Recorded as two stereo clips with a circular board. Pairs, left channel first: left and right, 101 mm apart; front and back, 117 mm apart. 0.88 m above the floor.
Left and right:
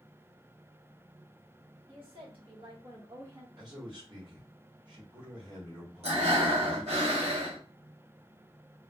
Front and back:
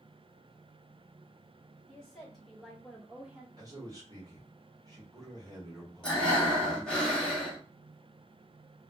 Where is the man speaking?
130° right, 1.1 m.